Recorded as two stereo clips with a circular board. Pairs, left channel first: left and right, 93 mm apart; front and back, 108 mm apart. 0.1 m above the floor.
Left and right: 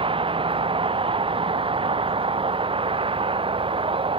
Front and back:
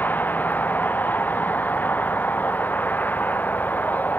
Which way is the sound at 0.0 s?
75° right.